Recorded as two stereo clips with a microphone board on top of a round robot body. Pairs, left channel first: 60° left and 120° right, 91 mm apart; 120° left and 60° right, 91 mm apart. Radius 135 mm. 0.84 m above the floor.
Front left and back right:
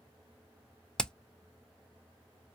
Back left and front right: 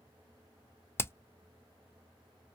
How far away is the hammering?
About 0.5 m.